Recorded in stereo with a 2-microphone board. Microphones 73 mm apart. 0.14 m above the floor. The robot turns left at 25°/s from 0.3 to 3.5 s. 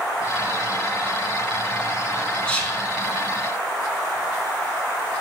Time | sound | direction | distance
2.5 | whispering | 15° left (ahead or behind) | 1.1 m